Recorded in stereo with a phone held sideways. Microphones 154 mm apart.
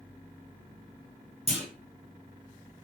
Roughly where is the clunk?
Right.